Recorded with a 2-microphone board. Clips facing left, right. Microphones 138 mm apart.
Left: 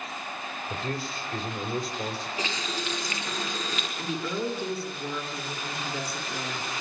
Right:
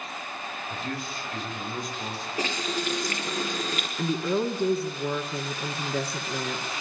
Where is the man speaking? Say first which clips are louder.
Left 2 dB; 35° left (ahead or behind), 4 m.